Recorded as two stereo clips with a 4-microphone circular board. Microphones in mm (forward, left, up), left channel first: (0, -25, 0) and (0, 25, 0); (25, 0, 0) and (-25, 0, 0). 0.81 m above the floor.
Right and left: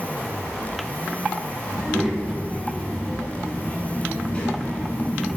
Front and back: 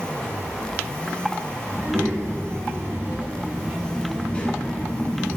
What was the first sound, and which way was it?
A child speaking, 160° right.